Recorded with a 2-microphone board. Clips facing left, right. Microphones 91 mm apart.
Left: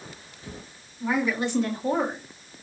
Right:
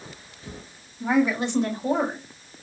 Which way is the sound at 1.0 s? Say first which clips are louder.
Right 4 dB; 25° right (ahead or behind).